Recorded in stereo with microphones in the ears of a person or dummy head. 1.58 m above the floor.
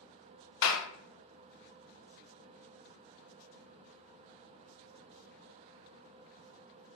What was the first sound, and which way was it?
A clap, 65° left (ahead or behind).